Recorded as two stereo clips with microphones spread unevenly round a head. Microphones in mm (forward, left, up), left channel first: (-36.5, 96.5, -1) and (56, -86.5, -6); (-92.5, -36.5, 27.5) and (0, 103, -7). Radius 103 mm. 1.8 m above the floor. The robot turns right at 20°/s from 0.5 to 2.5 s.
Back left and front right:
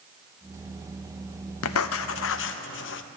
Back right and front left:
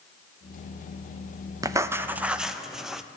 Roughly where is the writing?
Behind left.